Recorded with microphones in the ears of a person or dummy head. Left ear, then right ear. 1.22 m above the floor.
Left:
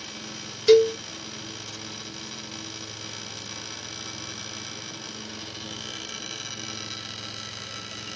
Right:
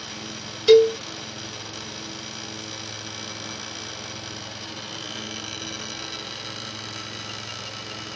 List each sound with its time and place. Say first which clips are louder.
0.7 s a cowbell: right 3 dB; centre (ahead or behind), 0.9 m